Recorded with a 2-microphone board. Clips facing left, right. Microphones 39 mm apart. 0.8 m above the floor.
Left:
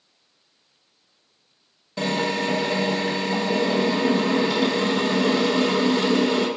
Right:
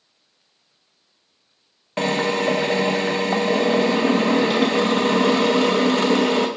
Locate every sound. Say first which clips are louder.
2.0 s a drill: right 3 dB; 50° right (ahead or behind), 0.9 m